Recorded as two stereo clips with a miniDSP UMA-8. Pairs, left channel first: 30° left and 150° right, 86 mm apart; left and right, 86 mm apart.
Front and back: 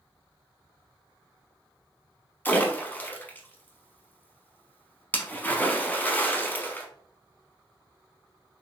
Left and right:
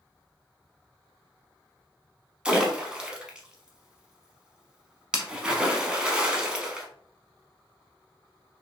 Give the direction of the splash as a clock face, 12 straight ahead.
1 o'clock.